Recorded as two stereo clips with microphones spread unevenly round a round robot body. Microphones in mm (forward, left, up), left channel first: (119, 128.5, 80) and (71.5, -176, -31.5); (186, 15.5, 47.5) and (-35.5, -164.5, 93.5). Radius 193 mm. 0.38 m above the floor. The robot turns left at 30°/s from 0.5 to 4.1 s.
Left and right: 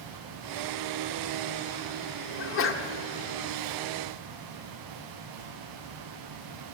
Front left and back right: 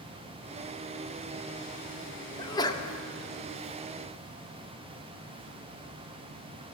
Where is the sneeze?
50° left, 0.9 m; by 2.9 s 35° left, 0.9 m.